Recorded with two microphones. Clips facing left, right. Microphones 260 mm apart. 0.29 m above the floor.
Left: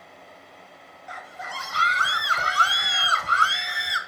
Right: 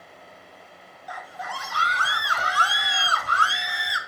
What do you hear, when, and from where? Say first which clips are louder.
1.1 s a scream: right 3 dB; 25° left (ahead or behind), 1.2 m